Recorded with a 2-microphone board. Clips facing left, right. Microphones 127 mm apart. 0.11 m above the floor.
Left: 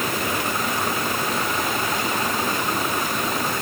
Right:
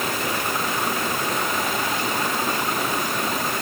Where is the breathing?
I don't hear breathing.